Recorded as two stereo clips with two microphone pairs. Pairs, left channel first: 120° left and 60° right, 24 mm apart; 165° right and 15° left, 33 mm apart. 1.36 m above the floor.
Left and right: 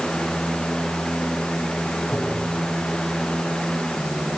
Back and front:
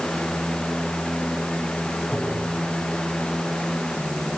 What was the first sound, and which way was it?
Tapping, 110° left.